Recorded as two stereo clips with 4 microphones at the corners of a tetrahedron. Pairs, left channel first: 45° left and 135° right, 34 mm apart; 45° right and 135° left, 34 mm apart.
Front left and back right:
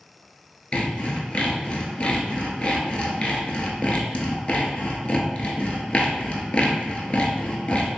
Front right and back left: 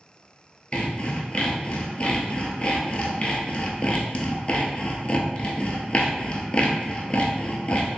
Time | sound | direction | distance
0.7 | sawing | straight ahead | 0.6 m